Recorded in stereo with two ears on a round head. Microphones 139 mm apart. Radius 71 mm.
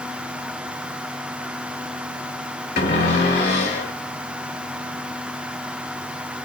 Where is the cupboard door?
70° left (ahead or behind), 2.5 m.